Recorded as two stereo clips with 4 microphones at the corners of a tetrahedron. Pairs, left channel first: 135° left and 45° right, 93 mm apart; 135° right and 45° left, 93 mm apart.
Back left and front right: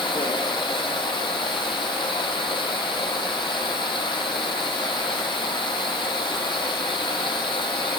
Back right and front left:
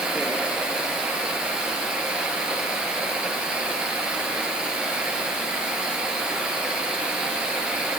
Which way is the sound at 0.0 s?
125° left.